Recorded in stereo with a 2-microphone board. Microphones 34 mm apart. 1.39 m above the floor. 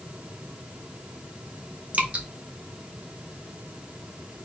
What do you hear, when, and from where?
1.9 s dripping: 45° right (ahead or behind), 0.9 m